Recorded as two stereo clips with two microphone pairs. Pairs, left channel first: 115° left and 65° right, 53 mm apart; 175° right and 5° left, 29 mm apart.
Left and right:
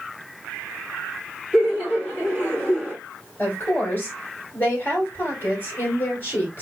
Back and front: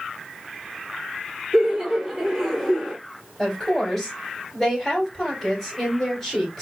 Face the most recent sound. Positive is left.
turn(degrees=120)